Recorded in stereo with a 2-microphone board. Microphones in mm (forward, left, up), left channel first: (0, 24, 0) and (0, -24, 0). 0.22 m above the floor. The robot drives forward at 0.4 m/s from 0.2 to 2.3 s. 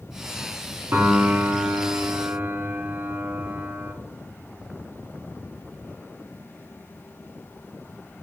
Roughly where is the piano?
Right.